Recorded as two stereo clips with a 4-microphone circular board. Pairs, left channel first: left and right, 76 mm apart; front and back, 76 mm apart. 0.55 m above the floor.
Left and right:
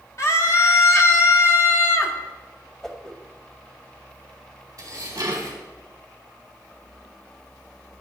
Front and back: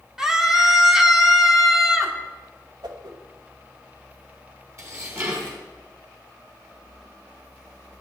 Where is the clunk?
I don't hear a clunk.